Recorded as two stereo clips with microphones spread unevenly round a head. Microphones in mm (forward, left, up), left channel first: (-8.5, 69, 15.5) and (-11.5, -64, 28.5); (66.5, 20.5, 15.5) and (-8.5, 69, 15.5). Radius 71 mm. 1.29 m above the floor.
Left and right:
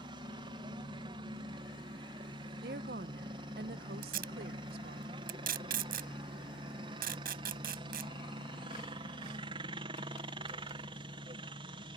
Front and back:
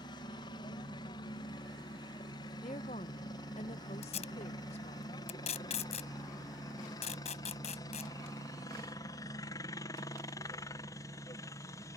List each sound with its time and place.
0.0 s a helicopter: 40° right; by 12.0 s 60° right
2.6 s a woman speaking: 70° right
4.0 s tape being pulled: 65° right